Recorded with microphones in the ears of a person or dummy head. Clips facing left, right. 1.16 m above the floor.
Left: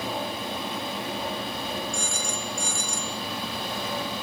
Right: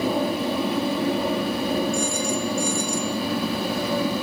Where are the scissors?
I don't hear scissors.